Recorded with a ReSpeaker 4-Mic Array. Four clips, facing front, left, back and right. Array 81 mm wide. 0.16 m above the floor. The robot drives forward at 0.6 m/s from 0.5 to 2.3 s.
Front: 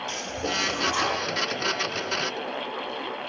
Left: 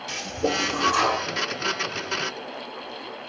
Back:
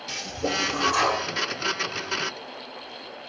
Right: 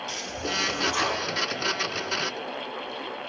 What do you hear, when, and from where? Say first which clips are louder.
0.1 s a toilet flushing: left 10 dB, back 4 dB; 115° left, 0.5 m; by 1.3 s 145° left, 0.9 m